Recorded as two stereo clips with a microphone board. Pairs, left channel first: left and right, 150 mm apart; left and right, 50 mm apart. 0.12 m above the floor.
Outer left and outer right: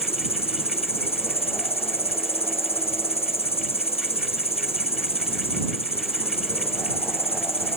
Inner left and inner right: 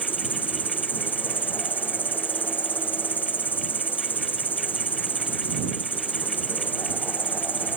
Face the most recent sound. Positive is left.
turn(degrees=40)  # may be behind; listen again after turning